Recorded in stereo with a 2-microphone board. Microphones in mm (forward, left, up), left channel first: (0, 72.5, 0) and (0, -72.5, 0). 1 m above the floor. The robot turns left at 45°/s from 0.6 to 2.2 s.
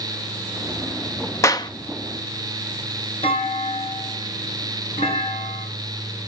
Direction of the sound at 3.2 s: 45° left (ahead or behind).